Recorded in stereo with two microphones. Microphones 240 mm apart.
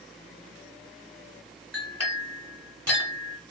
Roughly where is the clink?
Left.